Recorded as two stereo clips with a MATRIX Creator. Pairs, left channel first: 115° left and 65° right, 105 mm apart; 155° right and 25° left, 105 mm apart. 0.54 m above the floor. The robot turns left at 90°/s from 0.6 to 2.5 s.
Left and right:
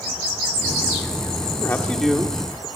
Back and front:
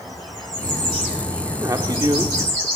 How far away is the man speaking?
About 1.5 m.